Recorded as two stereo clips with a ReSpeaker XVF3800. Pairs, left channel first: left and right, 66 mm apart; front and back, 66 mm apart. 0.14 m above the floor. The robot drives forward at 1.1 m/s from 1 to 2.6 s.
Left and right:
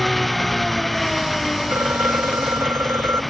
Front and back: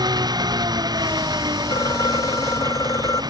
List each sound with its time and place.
0.0 s an engine running: straight behind
1.7 s a phone ringing: 30° right; by 3.2 s 35° right